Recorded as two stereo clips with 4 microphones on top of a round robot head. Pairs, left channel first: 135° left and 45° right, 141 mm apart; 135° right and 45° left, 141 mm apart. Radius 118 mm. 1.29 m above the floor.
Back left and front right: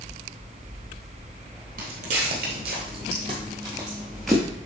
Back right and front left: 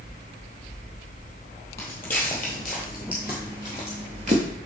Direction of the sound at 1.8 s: 60° right.